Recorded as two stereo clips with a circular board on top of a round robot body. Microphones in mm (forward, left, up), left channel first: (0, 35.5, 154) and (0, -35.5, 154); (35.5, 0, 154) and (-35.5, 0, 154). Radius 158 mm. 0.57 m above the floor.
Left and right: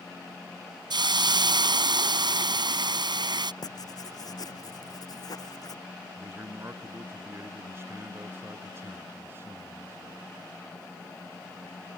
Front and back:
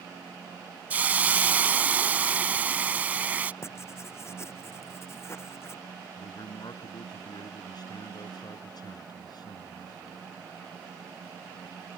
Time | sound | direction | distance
0.9 | a hiss | 110° right | ?
3.6 | writing | 55° left | ?
6.2 | a man speaking | 30° right | ?